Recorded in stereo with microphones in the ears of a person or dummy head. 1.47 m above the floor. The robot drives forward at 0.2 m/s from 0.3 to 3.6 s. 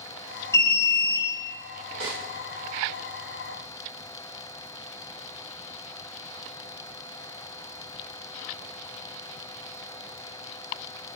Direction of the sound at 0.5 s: 25° left (ahead or behind).